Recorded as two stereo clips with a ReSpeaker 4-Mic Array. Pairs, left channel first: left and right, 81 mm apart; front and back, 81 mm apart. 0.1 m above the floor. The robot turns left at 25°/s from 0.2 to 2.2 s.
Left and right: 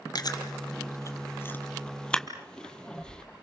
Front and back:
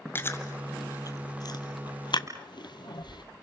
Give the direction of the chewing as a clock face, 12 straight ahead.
10 o'clock.